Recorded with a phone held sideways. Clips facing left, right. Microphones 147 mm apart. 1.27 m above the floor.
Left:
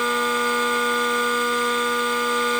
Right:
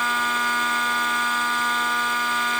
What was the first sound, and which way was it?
Only background noise.